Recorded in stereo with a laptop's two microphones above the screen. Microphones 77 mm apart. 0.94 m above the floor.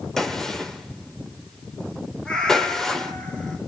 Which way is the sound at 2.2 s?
10° left (ahead or behind).